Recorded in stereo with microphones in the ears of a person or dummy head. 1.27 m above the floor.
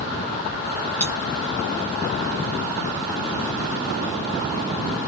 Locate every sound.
1.0 s cutlery clinking: 10° left (ahead or behind), 0.7 m